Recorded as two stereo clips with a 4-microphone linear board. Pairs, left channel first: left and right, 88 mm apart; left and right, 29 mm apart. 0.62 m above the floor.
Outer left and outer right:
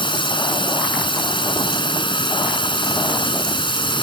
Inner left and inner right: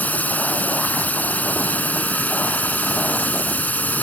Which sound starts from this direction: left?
A drone, at 0.0 s.